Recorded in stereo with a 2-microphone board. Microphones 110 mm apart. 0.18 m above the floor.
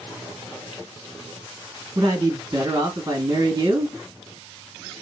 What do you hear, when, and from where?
1.9 s a man speaking: 35° right (ahead or behind), 1.3 m